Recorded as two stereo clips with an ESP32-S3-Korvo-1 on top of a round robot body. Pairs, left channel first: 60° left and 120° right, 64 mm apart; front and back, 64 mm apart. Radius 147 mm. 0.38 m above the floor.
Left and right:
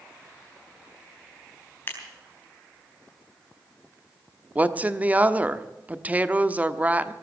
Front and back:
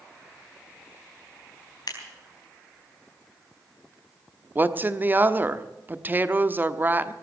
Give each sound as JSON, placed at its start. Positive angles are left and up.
{"t": 1.9, "sound": "scissors", "azimuth_deg": 5, "distance_m": 4.0}
{"t": 4.5, "sound": "a woman speaking", "azimuth_deg": -165, "distance_m": 1.2}